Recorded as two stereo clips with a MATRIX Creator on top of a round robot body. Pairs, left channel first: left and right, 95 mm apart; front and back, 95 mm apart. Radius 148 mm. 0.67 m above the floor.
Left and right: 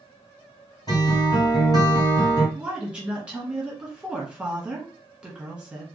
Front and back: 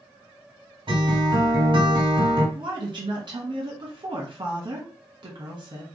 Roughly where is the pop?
No pop in this recording.